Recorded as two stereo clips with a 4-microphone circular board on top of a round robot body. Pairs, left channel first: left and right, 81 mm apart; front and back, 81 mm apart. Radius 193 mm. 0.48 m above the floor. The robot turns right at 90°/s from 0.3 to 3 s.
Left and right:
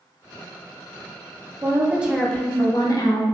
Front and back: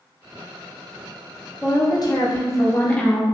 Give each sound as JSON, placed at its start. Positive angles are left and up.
{"t": 1.6, "sound": "a woman speaking", "azimuth_deg": -50, "distance_m": 0.9}